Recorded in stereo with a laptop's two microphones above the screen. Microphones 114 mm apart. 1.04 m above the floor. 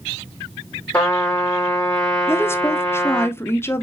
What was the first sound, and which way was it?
A trumpet, 20° left (ahead or behind).